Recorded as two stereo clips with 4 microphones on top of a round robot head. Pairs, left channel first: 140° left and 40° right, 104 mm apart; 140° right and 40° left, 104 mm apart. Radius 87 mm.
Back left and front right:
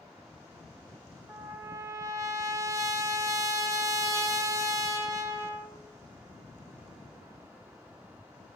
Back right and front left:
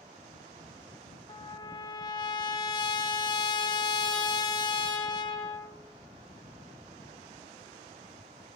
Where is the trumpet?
95° right, 0.7 m.